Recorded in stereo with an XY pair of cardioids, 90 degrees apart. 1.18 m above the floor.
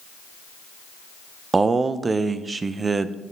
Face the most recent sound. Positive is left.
turn(degrees=-40)